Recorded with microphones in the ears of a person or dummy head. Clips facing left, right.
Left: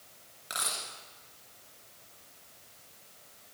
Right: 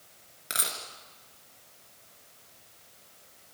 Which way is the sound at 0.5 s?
25° right (ahead or behind).